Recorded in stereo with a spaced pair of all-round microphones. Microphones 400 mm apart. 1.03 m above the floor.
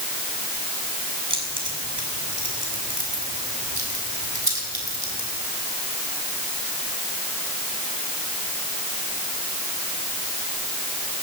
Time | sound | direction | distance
1.3 | keys jangling | 80° right | 7.5 m